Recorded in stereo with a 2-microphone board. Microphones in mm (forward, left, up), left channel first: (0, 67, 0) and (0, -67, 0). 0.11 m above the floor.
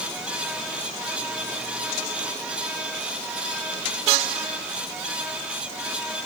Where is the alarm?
I don't hear an alarm.